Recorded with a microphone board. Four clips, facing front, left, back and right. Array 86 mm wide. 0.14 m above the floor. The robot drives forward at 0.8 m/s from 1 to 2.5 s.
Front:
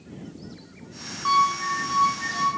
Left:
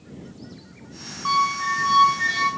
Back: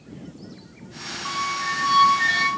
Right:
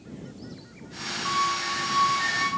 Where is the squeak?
55° left, 0.6 m; by 2.5 s 160° left, 1.0 m.